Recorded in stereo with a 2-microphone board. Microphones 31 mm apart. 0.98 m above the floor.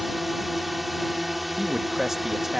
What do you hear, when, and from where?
0.0 s a drone: centre (ahead or behind)
1.6 s a man speaking: 10° right (ahead or behind)